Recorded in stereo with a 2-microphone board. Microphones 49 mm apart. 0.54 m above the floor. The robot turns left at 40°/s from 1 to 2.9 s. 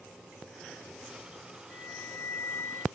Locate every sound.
1.7 s a flute: 165° left, 1.1 m; by 2.9 s 115° left, 1.1 m